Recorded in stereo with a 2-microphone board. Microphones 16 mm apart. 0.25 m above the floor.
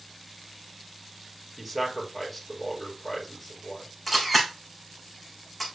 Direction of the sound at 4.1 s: 5° left (ahead or behind).